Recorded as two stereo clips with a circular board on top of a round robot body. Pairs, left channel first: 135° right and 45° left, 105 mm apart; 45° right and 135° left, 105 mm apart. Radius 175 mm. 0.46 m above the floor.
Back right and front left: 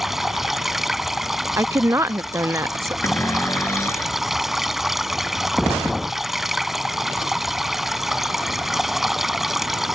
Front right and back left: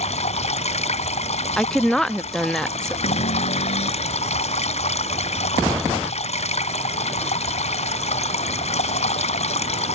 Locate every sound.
0.0 s running water: 45° right
1.6 s a woman speaking: 35° left
3.0 s a cupboard door: 65° right